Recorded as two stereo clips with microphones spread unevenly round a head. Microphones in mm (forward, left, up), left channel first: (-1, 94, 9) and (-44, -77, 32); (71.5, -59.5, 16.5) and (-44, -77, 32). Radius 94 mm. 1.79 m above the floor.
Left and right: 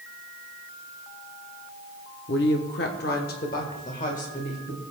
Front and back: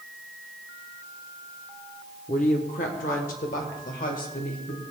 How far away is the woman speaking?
About 0.8 m.